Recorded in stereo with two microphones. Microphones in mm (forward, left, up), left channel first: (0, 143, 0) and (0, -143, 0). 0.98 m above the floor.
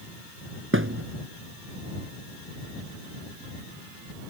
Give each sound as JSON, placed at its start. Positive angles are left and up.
{"t": 0.7, "sound": "a thud", "side_deg": -45}